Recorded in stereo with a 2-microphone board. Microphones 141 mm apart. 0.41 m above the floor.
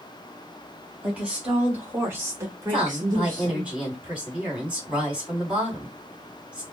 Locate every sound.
1.0 s a woman speaking: 10° right (ahead or behind), 2.5 m; by 3.7 s 25° right (ahead or behind), 1.3 m
2.7 s a woman speaking: 10° right (ahead or behind), 3 m